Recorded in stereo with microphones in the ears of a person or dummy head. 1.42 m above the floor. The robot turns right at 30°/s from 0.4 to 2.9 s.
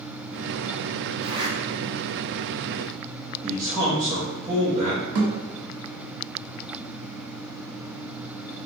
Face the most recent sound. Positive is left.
turn(degrees=-55)  # may be behind; listen again after turning